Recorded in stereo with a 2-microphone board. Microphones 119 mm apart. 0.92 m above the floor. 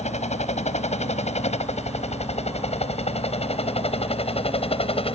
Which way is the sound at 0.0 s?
70° left (ahead or behind).